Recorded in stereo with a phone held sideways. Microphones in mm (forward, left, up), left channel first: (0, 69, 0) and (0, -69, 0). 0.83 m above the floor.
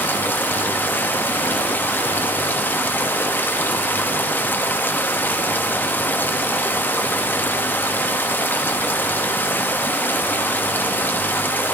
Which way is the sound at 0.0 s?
15° left (ahead or behind).